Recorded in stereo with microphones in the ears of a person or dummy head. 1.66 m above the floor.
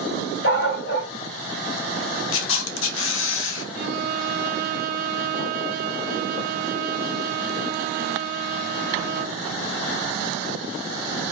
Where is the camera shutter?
80° left, 1.5 m.